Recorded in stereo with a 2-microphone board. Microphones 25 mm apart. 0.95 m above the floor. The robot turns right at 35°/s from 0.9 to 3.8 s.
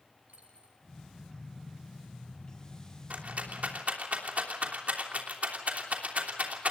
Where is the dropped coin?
75° right (ahead or behind), 6 m.